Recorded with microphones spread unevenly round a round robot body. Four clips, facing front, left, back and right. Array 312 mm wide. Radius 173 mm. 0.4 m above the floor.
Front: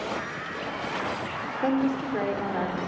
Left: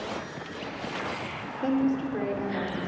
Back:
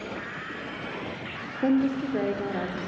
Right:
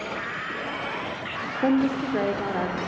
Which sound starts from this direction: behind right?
A woman speaking, at 1.6 s.